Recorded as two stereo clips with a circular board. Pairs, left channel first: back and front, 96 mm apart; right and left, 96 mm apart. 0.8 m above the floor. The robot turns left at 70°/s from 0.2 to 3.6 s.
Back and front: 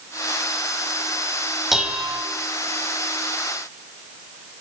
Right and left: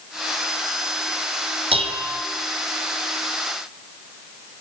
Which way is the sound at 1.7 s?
90° left.